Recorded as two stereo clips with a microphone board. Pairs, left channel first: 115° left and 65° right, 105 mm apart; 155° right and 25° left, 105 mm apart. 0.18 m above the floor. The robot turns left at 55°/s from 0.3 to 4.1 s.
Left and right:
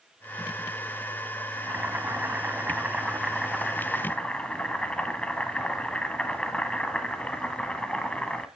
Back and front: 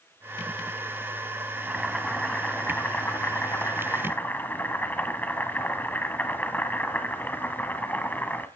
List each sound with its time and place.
1.6 s boiling: 50° right, 1.4 m; by 8.5 s 175° left, 1.4 m